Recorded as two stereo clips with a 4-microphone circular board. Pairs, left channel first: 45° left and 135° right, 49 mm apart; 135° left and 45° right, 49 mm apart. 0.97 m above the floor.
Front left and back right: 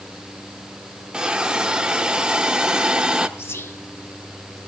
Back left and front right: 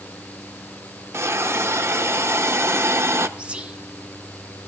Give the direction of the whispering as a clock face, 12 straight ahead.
11 o'clock.